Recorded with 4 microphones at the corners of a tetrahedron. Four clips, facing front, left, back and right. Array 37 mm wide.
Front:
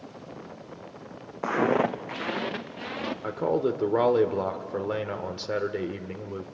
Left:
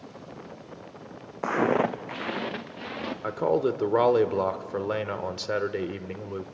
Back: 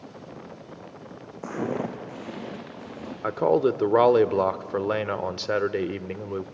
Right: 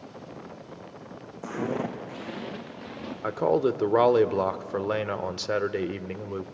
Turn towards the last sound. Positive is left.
turn(degrees=175)